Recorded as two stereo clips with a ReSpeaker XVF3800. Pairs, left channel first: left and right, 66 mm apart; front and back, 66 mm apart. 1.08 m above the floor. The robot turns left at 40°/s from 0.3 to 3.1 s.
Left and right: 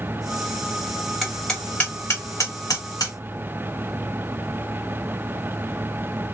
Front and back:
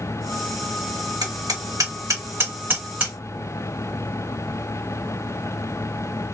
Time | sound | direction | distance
1.2 | hammering | straight behind | 1.5 m